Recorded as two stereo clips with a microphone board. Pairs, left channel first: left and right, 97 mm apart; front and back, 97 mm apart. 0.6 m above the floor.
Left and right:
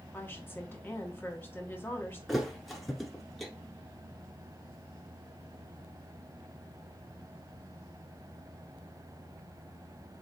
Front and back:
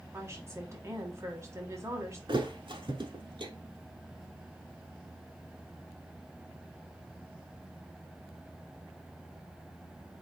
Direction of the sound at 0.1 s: 145° left.